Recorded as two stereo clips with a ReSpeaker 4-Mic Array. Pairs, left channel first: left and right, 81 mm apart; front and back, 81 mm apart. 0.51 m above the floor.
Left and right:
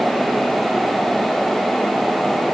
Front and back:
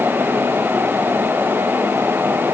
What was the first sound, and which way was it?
Only background noise.